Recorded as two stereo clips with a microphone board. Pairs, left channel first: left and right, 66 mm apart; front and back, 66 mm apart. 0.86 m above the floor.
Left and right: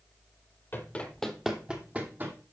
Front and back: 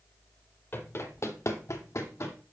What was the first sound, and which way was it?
Running footsteps, 40° left.